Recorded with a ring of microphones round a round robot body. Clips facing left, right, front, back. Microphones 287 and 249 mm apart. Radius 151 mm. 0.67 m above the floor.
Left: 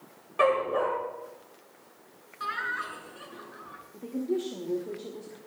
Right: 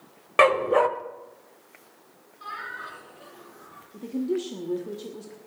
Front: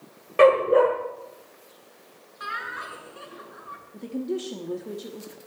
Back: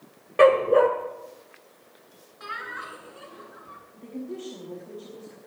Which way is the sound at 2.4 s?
75° left.